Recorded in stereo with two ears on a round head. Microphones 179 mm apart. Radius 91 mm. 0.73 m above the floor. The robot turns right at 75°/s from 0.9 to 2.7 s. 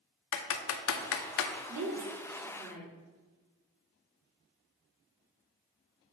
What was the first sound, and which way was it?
Typing on a keyboard, 70° left (ahead or behind).